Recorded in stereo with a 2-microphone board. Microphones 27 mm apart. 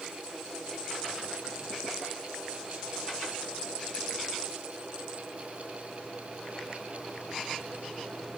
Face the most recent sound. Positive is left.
No sound to turn to.